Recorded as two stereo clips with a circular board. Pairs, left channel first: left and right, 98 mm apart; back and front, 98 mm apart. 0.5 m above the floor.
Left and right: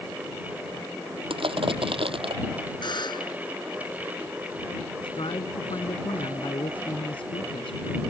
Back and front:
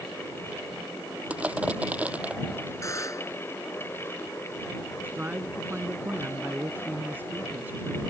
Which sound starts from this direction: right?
Crushing, at 1.3 s.